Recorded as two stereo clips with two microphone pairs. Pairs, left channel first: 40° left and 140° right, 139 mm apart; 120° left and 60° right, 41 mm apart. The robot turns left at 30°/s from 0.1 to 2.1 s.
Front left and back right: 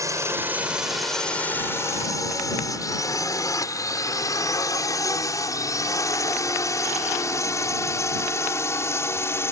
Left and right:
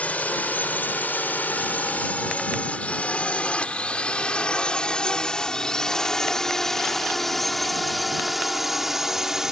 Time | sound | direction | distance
0.0 | a drone | 160° left | ?